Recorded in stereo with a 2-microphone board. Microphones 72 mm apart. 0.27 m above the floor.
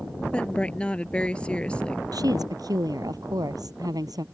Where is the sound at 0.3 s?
15° left (ahead or behind).